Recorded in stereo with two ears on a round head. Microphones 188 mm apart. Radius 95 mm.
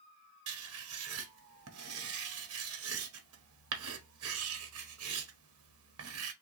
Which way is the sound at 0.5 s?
80° right.